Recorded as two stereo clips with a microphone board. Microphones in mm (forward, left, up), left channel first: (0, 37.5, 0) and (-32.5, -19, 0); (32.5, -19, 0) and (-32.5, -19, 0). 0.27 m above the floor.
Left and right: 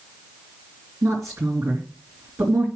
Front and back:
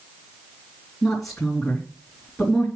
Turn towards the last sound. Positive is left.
turn(degrees=-85)